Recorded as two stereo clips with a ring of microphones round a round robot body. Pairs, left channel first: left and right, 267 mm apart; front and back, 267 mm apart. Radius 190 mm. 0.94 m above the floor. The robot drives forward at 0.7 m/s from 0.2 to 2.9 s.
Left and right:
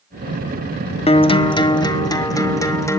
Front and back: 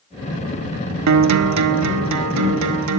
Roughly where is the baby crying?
No baby crying in this recording.